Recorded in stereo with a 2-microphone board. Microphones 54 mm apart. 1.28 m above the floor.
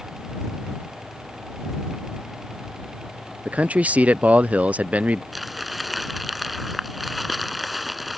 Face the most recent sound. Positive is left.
turn(degrees=-5)  # may be behind; listen again after turning